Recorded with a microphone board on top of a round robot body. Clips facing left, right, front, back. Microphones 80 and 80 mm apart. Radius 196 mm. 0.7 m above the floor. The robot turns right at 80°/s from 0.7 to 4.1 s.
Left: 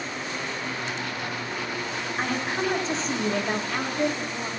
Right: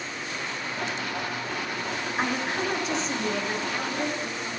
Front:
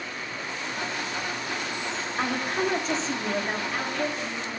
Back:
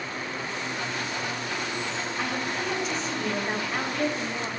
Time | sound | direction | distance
2.2 | a woman speaking | 15° right | 1.4 m